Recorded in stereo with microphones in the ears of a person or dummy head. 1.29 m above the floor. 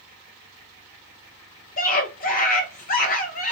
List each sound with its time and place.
1.8 s a scream: 40° left (ahead or behind), 0.8 m